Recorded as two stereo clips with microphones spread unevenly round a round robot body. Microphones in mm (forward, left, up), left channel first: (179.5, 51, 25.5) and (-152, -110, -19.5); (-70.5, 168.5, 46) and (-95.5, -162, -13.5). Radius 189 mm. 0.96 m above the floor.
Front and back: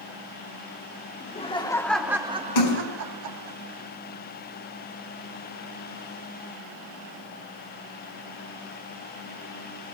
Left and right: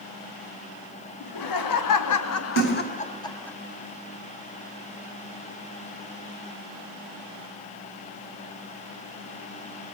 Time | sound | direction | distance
1.2 | laughter | 95° left | 2.5 m
2.5 | a splash | 25° left | 3.5 m